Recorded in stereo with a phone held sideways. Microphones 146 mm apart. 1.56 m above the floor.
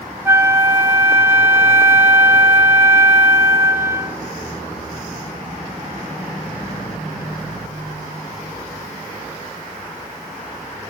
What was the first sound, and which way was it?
A flute, 15° right (ahead or behind).